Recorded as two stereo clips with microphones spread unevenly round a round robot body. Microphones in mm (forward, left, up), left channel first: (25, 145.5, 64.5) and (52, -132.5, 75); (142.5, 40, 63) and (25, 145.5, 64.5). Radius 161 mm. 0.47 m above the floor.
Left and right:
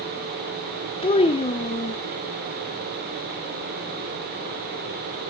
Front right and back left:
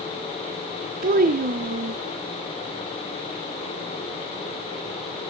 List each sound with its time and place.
1.0 s a child speaking: 165° left, 0.5 m